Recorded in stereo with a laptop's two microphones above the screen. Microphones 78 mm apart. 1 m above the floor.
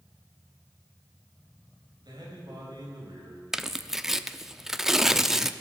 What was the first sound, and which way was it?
A man speaking, 60° right (ahead or behind).